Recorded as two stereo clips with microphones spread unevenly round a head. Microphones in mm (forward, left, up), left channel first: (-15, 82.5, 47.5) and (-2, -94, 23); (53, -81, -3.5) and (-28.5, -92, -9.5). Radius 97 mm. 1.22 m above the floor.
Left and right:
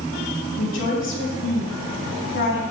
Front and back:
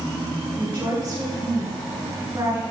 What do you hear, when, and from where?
0.6 s a woman speaking: 115° left, 4.5 m